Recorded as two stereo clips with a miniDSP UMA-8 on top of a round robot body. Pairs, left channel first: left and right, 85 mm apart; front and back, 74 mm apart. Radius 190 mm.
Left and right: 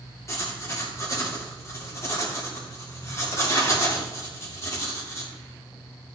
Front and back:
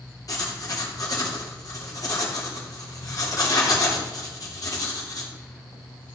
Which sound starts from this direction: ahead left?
Writing, at 0.3 s.